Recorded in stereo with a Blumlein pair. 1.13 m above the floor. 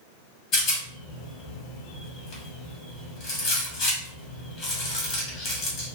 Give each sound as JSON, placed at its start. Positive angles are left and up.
{"t": 0.5, "sound": "a rattle", "azimuth_deg": 35, "distance_m": 1.0}